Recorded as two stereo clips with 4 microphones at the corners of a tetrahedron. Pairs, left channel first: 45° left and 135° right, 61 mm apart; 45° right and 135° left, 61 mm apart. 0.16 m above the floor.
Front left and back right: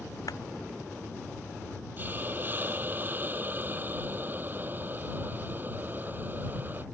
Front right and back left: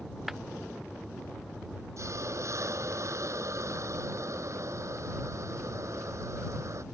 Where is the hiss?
165° left.